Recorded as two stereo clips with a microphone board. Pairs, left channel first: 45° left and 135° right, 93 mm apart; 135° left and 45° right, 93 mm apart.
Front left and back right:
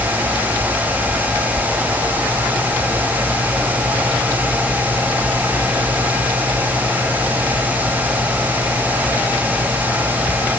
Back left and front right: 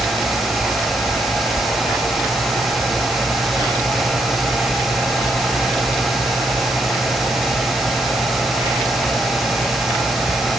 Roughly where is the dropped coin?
I don't hear a dropped coin.